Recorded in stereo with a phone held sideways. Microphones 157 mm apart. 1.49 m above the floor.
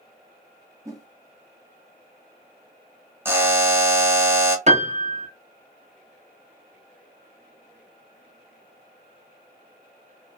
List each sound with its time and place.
0.8 s a whoosh: 20° right (ahead or behind), 1.0 m
3.2 s a buzzer: 15° right (ahead or behind), 0.6 m
4.7 s a piano: 45° right (ahead or behind), 0.7 m